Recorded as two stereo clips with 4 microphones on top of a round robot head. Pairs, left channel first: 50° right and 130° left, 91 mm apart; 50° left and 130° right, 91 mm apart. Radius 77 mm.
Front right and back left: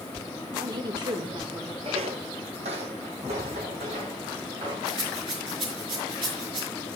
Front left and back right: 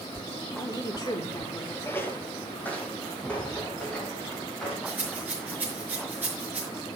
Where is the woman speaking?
95° left, 2.5 m.